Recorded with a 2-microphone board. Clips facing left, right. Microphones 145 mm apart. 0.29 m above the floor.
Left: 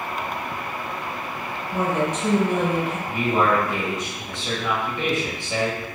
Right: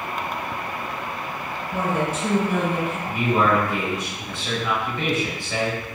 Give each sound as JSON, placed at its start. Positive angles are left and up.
{"t": 1.7, "sound": "a woman speaking", "side_deg": -5, "distance_m": 1.4}
{"t": 3.1, "sound": "a man speaking", "side_deg": 20, "distance_m": 1.0}